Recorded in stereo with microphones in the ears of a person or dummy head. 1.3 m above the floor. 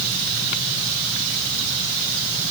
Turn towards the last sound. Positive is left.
No sound to turn to.